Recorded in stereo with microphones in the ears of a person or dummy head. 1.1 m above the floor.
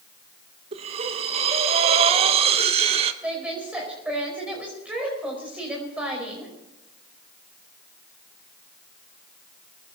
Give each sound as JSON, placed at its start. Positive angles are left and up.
{"t": 0.7, "sound": "breathing", "side_deg": -35, "distance_m": 1.1}
{"t": 3.2, "sound": "a woman speaking", "side_deg": -5, "distance_m": 5.0}